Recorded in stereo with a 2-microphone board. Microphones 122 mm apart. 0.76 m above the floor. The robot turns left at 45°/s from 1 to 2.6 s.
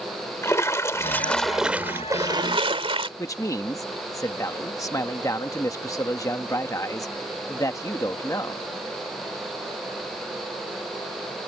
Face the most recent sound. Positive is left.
turn(degrees=25)  # may be behind; listen again after turning